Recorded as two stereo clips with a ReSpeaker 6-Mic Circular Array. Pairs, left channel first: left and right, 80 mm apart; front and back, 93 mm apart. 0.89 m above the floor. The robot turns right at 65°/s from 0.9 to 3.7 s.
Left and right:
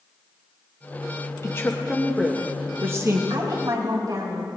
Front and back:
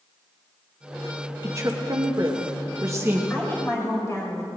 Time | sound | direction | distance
1.4 | a woman speaking | 130° left | 1.1 m
3.3 | a woman speaking | 80° right | 4 m